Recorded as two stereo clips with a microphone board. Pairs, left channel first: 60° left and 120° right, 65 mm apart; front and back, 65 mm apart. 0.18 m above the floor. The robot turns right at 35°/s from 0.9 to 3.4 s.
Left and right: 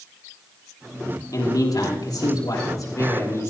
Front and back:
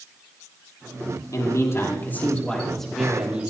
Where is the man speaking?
30° left, 5.5 m; by 3.5 s 105° left, 5.5 m.